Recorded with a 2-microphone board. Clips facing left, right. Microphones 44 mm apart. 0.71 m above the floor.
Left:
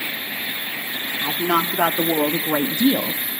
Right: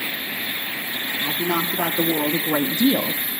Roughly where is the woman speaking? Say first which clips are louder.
Left 4 dB; left.